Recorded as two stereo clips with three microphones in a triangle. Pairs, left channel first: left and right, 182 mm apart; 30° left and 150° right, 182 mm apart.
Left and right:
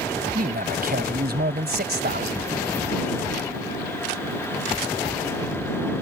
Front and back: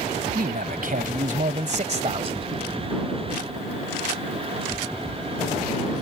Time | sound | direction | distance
0.3 | a man speaking | 120° right | ?